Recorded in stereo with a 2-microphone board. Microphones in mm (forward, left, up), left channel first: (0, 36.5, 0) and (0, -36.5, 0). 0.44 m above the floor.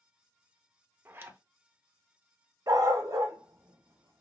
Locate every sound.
1.1 s a zipper: 30° right (ahead or behind), 0.5 m
2.7 s a dog barking: 55° right (ahead or behind), 0.6 m